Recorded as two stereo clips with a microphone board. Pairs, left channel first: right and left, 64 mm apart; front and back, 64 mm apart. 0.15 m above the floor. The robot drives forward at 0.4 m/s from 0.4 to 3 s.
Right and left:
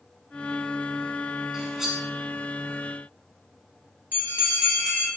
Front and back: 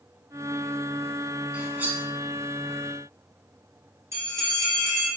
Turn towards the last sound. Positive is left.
turn(degrees=145)